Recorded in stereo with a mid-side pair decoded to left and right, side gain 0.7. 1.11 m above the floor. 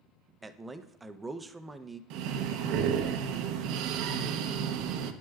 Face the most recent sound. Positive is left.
turn(degrees=-65)